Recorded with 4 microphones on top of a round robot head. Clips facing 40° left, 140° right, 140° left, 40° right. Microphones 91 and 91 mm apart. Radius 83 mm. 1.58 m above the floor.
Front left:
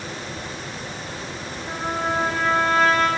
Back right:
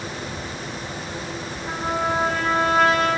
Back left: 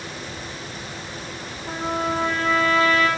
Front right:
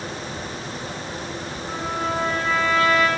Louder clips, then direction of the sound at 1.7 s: Back right 1 dB, back left 2 dB; 135° left.